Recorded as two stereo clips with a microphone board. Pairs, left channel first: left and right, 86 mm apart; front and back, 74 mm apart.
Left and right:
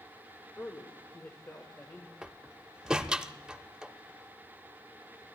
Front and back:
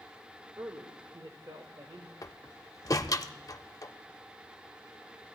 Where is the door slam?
10° right, 0.5 m.